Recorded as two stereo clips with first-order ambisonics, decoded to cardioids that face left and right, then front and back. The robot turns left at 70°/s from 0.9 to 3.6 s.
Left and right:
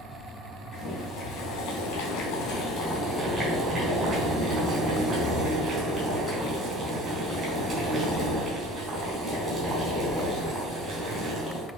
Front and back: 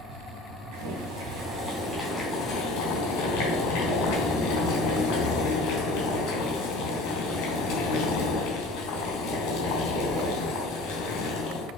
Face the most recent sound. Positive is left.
turn(degrees=-25)